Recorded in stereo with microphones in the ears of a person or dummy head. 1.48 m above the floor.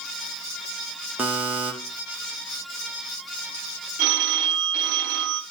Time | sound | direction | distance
1.2 | a buzzer | 10° right (ahead or behind) | 0.9 m
4.0 | a phone ringing | 60° right (ahead or behind) | 0.8 m